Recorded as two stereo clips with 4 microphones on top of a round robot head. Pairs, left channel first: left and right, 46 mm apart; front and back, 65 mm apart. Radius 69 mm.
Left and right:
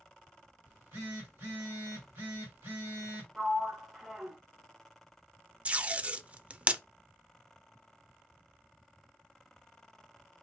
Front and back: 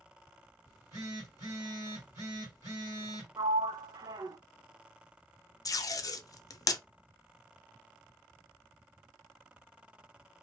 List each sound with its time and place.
0.7 s a phone buzzing: 125° right, 1.9 m
3.4 s a sliding door: 170° right, 0.6 m
5.7 s tape being pulled: 30° right, 0.6 m